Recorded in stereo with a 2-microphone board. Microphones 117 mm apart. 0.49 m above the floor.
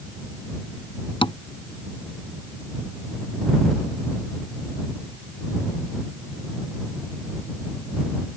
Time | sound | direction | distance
1.2 | tapping | 50° left (ahead or behind) | ?